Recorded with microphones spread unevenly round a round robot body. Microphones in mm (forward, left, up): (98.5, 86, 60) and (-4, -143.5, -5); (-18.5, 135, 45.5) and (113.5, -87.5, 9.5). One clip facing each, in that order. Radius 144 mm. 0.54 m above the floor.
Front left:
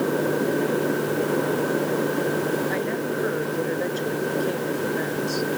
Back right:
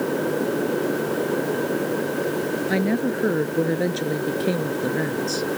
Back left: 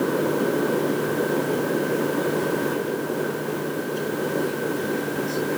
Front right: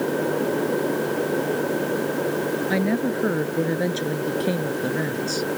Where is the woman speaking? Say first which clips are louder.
Back right 4 dB, front right 3 dB; 80° right; by 5.5 s 70° right.